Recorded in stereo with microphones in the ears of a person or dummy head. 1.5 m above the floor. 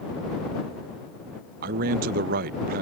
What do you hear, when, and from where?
1.6 s a man speaking: 55° right (ahead or behind)